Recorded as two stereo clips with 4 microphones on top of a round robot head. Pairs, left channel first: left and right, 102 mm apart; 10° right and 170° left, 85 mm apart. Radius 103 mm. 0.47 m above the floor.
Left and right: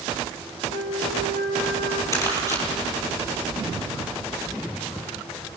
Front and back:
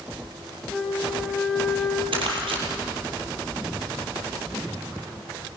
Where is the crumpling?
150° left, 6.5 m.